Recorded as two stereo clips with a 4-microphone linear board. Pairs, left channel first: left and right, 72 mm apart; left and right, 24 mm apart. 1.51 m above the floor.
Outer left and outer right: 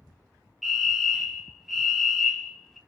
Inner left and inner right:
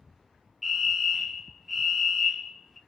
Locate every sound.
0.6 s a fire alarm: centre (ahead or behind), 0.6 m